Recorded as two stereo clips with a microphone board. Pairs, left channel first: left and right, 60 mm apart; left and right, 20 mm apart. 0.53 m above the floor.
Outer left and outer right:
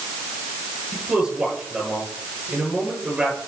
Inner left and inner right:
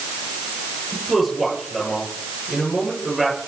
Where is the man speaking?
15° right (ahead or behind), 9 m.